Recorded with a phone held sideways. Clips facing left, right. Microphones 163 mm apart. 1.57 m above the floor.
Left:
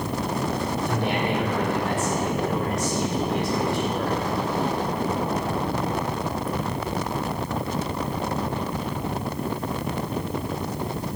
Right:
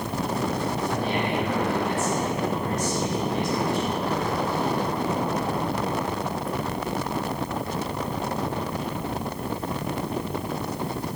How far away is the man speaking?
About 5.5 m.